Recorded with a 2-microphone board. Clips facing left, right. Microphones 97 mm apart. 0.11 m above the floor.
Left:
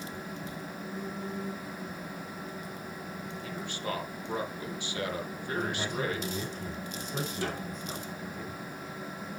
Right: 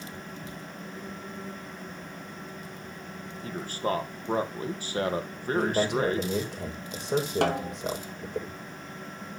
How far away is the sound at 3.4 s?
About 3 m.